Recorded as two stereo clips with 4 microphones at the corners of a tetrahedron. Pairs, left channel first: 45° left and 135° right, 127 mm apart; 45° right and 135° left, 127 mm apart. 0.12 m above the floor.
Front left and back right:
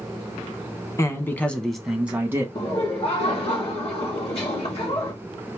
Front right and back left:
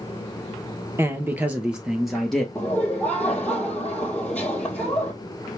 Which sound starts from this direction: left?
A man speaking, at 1.0 s.